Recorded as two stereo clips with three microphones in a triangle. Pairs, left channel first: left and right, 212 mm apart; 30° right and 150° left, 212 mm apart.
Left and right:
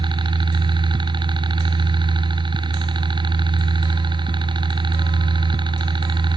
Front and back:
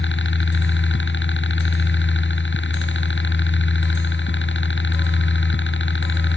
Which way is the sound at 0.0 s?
25° right.